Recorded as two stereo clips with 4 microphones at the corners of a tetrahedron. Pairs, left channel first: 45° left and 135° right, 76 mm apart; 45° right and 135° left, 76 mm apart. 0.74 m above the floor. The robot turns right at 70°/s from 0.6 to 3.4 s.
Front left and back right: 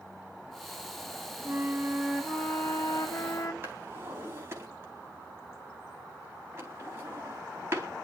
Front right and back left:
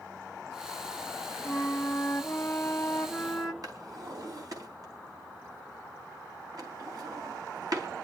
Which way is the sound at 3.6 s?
170° left.